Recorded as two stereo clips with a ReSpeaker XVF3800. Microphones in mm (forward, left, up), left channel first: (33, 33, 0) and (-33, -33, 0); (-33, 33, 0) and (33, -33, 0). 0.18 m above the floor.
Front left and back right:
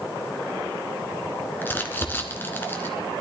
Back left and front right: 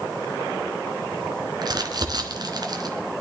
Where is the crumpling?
20° right, 1.5 m.